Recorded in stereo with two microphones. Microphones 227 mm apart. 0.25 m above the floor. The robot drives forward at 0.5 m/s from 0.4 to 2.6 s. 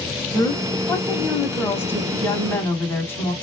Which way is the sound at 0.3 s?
15° left (ahead or behind).